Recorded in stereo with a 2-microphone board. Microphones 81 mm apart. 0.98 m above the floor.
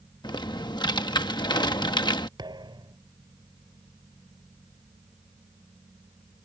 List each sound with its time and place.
0.2 s typing on a keyboard: 65° left (ahead or behind)
2.4 s a thud: 65° right (ahead or behind)